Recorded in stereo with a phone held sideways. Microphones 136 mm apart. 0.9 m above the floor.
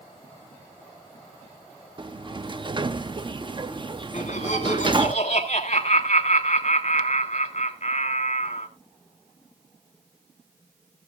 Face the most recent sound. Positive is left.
turn(degrees=50)  # may be behind; listen again after turning